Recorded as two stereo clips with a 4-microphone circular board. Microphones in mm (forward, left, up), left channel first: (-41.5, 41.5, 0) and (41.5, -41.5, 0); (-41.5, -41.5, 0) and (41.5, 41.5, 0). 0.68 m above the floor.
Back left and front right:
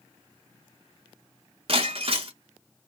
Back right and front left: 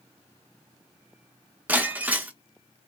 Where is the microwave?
I don't hear a microwave.